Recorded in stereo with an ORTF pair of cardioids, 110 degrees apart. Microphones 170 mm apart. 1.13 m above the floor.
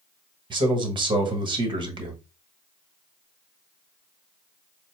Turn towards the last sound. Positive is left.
turn(degrees=-30)